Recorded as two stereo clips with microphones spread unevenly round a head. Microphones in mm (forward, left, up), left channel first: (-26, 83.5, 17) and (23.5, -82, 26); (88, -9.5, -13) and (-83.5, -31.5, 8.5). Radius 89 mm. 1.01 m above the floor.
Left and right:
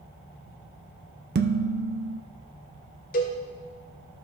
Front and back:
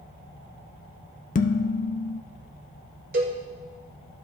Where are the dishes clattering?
35° right, 0.5 m.